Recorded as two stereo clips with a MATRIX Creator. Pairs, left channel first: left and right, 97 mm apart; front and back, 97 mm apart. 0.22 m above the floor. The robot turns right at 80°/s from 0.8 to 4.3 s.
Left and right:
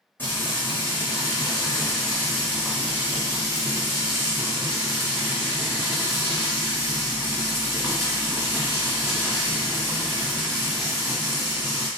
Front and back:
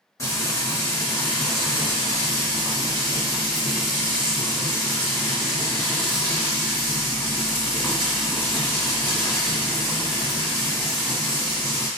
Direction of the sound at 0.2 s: 35° left.